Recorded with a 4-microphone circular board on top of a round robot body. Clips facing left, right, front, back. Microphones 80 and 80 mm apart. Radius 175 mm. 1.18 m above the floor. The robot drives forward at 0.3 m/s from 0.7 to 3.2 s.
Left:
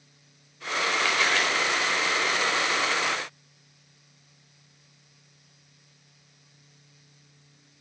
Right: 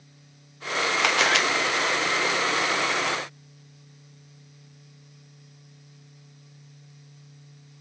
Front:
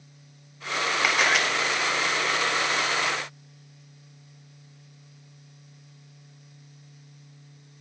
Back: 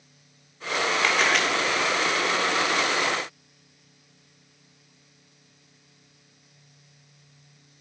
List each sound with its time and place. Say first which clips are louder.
1.0 s a camera shutter: right 4 dB, even; 80° right, 2 m; by 1.4 s 85° right, 2 m